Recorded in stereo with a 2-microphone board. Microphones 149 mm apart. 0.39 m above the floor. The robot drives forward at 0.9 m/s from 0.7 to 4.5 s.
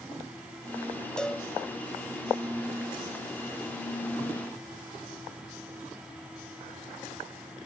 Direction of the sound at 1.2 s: 5° left (ahead or behind).